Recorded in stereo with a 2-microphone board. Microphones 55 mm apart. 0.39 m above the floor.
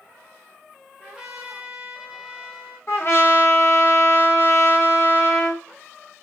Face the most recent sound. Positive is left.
turn(degrees=50)  # may be behind; listen again after turning